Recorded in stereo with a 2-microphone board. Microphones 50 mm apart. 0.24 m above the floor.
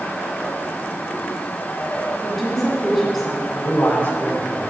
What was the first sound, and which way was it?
A woman speaking, centre (ahead or behind).